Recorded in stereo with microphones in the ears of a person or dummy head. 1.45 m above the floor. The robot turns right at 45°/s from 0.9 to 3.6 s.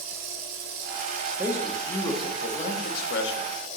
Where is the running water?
60° right, 1.7 m; by 3.8 s 60° left, 1.7 m.